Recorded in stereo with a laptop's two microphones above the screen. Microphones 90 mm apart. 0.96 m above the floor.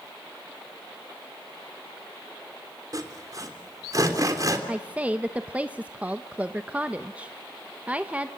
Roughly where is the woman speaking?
Centre.